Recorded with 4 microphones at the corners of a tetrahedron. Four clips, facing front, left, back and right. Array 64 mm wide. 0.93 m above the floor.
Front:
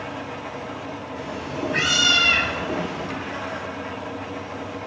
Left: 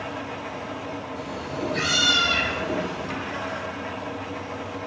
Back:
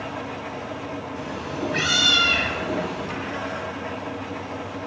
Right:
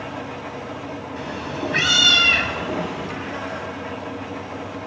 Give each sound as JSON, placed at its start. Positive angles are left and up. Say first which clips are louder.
{"t": 1.2, "sound": "a cat meowing", "louder": "right 4 dB, front 2 dB", "azimuth_deg": -90, "distance_m": 3.0}